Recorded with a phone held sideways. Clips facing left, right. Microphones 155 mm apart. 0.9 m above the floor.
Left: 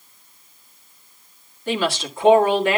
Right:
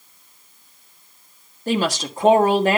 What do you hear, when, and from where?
1.7 s a woman speaking: 40° right (ahead or behind), 1.4 m